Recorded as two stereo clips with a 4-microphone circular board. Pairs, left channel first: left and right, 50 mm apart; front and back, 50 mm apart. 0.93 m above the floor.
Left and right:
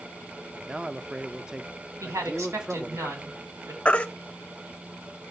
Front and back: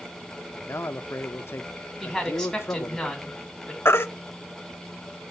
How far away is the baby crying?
About 0.6 m.